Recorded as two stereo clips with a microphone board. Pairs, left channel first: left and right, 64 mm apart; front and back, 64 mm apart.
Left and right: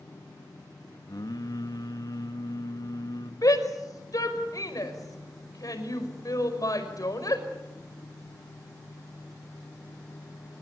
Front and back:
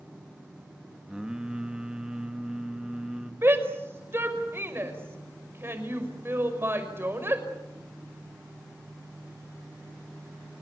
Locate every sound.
1.1 s singing: 100° left, 1.9 m
3.4 s a shout: 120° left, 5.5 m